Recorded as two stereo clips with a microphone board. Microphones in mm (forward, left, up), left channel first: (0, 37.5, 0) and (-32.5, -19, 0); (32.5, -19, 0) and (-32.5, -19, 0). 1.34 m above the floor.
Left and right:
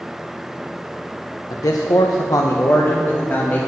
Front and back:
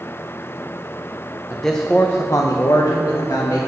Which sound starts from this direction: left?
A man speaking, at 1.5 s.